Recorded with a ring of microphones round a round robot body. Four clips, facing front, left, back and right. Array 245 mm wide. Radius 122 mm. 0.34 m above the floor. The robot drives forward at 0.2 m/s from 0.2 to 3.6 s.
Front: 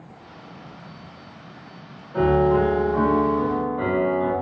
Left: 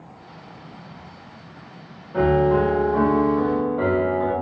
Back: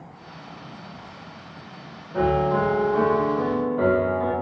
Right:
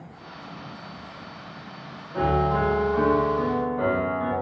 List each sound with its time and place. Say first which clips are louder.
2.1 s a piano: left 5 dB, front 3 dB; 90° left, 0.6 m; by 4.3 s 130° left, 0.7 m